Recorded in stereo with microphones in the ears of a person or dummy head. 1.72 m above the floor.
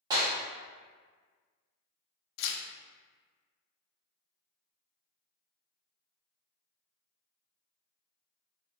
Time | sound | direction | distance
0.1 | a clap | 15° right (ahead or behind) | 0.6 m
2.4 | tearing paper | 75° left (ahead or behind) | 0.5 m